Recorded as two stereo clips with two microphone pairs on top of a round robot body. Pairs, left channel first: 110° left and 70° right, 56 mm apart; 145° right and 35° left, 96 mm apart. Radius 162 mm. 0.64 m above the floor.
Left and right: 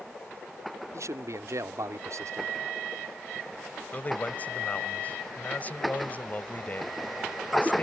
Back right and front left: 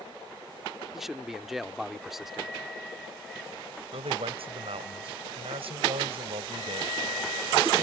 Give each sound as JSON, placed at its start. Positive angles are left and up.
{"t": 0.9, "sound": "a man speaking", "azimuth_deg": -50}
{"t": 3.9, "sound": "a man speaking", "azimuth_deg": 50}